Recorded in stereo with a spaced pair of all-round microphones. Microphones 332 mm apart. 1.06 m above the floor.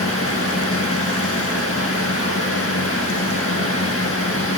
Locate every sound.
0.0 s a fan: 40° left (ahead or behind), 1.3 m